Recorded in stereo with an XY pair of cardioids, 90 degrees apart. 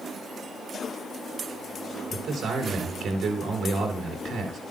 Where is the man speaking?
65° right, 4 m.